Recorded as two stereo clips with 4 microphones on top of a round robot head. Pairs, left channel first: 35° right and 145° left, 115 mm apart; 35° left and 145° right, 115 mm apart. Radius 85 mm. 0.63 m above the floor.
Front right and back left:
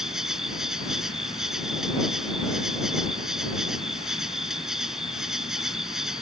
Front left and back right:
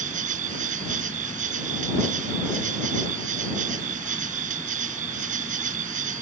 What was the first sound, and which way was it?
An insect, 130° right.